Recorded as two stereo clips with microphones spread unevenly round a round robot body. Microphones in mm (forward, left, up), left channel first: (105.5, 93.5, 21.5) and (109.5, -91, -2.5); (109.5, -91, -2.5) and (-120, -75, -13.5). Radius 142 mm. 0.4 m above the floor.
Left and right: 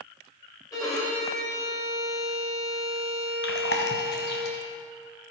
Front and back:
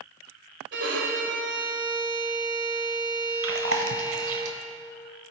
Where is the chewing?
140° left, 0.8 m.